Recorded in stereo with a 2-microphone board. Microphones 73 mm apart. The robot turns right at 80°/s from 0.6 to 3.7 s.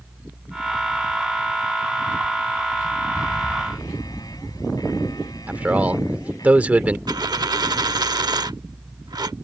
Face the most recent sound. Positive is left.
turn(degrees=-70)  # may be behind; listen again after turning